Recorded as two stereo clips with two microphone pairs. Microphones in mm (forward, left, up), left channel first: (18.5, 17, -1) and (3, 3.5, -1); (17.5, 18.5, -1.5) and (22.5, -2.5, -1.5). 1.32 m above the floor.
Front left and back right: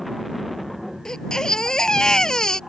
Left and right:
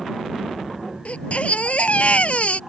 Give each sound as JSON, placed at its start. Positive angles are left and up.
{"t": 1.1, "sound": "a baby crying", "azimuth_deg": 100}